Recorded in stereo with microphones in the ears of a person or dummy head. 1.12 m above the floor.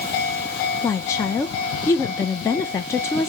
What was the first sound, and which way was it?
A woman speaking, 15° left (ahead or behind).